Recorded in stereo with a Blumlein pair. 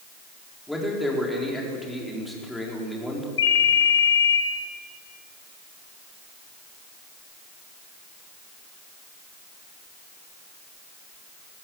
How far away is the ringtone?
About 2.5 m.